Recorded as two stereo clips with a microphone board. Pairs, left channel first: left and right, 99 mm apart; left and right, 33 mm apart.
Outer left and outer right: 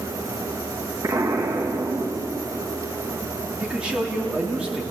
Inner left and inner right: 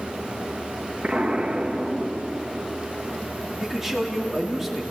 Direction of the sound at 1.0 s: 35° right (ahead or behind).